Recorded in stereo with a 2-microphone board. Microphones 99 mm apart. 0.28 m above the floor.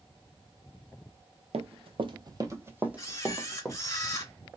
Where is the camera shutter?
30° left (ahead or behind), 0.8 m.